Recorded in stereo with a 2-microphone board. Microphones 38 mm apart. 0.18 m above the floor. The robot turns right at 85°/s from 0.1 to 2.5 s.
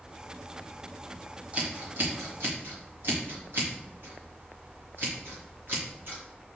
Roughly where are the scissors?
Right.